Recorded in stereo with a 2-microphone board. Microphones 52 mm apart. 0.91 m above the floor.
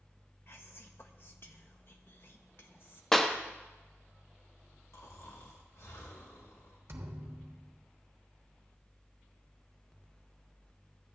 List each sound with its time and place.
0.5 s whispering: 50° left (ahead or behind), 0.8 m
3.1 s a clap: 10° left (ahead or behind), 0.9 m
4.9 s snoring: 80° left, 1.9 m
6.9 s a thud: 60° right (ahead or behind), 1.1 m